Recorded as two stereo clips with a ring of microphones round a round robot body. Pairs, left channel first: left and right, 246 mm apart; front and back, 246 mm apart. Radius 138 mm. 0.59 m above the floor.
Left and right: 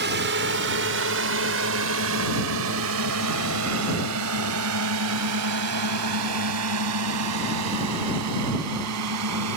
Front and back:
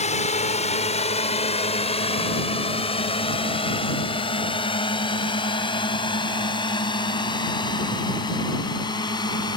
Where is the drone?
55° right; by 9.6 s 75° right.